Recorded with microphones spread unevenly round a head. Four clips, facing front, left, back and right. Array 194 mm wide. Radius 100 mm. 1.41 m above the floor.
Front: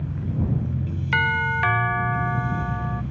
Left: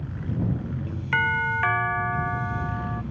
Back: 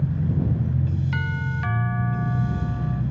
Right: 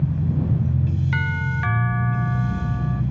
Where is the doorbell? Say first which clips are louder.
Left 2 dB, front 7 dB; 85° left.